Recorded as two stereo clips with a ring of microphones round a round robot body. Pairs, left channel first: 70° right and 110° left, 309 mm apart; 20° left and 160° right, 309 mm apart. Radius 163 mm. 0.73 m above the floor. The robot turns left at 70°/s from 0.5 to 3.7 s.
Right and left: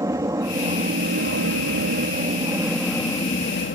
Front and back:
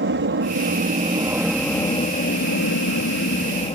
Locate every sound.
0.0 s an aircraft: 175° right; by 3.8 s 40° right